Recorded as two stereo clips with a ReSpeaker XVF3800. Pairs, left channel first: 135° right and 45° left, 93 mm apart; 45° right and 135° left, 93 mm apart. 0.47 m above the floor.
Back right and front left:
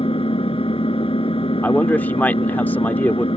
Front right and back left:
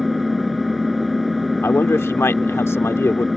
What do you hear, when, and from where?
0.0 s an engine running: 135° right
1.6 s a man speaking: 80° right